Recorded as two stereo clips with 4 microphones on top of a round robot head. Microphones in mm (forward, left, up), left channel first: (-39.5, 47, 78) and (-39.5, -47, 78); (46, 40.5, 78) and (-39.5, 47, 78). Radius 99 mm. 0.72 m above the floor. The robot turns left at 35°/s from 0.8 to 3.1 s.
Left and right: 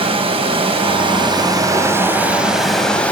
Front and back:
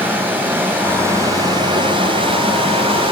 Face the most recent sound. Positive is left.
turn(degrees=165)